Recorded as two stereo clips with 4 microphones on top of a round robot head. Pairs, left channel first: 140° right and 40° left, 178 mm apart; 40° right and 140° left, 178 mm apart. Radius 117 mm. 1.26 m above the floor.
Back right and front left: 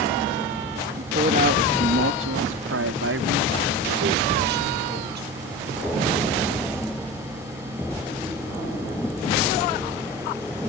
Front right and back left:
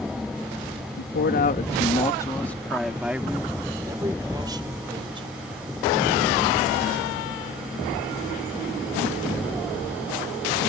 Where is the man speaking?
15° right; by 5.9 s 75° left.